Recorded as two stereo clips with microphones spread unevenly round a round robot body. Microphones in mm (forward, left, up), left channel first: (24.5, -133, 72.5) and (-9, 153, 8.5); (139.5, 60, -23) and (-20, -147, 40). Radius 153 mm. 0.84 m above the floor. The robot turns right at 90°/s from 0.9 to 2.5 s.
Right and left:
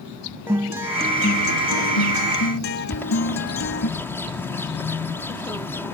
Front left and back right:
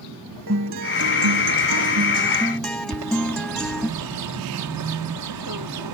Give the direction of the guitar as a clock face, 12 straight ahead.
6 o'clock.